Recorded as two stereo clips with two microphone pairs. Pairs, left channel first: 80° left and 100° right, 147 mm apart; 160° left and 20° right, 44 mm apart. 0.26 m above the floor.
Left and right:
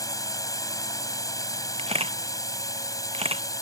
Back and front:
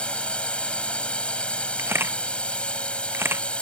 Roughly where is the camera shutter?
Ahead right.